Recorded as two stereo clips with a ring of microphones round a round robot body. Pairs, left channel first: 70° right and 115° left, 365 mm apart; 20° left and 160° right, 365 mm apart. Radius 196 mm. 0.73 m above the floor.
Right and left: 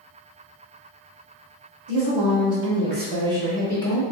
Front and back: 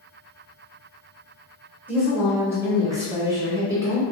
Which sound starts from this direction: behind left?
A woman speaking, at 1.9 s.